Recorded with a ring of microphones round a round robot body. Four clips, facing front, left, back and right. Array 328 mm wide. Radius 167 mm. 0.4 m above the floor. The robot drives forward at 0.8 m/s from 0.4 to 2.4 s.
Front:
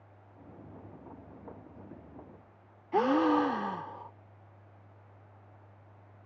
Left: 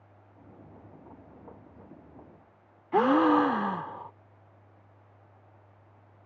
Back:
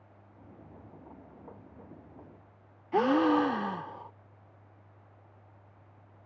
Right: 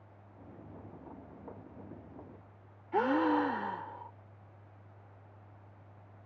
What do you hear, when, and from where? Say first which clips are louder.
2.9 s a gasp: left 7 dB, back 1 dB; 105° left